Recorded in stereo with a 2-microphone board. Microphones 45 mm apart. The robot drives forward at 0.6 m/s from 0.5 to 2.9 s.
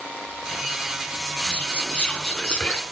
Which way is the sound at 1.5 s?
20° left (ahead or behind).